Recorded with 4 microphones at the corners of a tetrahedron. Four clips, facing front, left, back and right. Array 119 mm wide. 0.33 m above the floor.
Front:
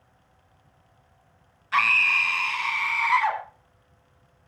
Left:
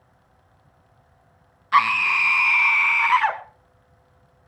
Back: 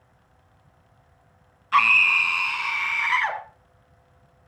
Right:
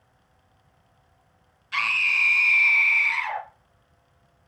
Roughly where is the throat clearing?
No throat clearing in this recording.